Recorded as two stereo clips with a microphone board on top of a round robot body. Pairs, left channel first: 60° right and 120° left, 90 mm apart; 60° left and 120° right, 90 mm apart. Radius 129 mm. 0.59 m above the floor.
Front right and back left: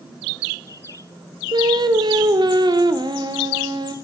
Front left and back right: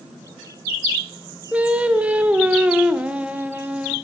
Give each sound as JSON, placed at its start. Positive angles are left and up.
{"t": 1.5, "sound": "singing", "azimuth_deg": 160, "distance_m": 1.0}